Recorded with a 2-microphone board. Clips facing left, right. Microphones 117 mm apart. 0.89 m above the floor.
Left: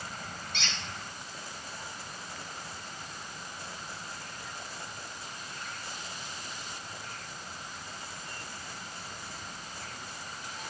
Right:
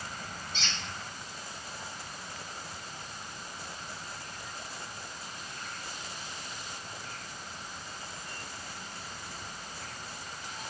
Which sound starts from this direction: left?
A squeak, at 0.5 s.